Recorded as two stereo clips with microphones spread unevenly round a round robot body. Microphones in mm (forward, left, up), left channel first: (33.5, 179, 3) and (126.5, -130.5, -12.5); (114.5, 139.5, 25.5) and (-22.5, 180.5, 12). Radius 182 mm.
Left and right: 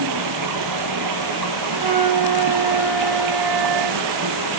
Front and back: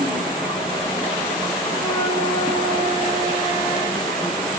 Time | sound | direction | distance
0.0 | running water | 105° right | 1.2 m
1.7 | a flute | 95° right | 1.4 m